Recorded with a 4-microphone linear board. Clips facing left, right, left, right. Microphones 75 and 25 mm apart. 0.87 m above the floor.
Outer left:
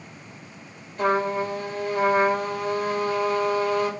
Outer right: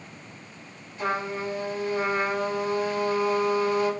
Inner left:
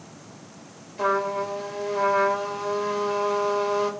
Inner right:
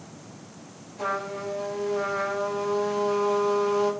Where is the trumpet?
55° left (ahead or behind), 3 m.